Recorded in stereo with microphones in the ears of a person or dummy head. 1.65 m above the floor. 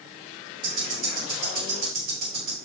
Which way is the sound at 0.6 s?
40° right (ahead or behind).